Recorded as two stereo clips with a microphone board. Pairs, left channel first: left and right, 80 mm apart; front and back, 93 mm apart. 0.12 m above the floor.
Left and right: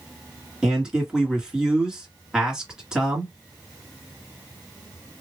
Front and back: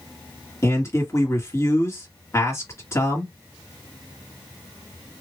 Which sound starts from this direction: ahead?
A man speaking, at 0.6 s.